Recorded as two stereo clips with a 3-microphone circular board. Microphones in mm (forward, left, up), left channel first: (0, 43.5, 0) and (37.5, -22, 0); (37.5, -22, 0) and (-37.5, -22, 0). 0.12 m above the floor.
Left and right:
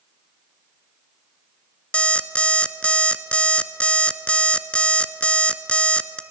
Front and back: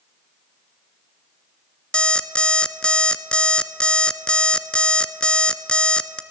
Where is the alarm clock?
60° left, 0.9 m.